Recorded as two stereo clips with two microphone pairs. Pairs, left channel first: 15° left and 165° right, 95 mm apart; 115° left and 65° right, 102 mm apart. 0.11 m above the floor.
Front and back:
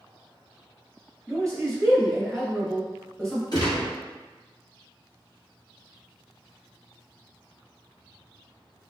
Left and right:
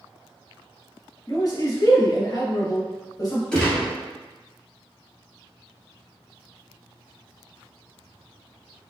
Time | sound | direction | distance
1.3 | a man speaking | 95° left | 1.6 m
3.5 | a gunshot | 35° left | 1.5 m